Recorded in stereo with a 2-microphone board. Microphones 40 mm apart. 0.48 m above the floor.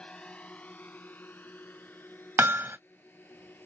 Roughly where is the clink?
No clink in this recording.